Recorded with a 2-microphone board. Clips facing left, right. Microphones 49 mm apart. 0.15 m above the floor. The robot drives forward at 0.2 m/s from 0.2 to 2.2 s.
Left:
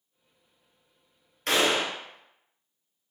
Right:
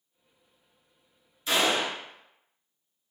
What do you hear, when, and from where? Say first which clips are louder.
1.5 s a gunshot: left 1 dB; 55° left (ahead or behind), 0.8 m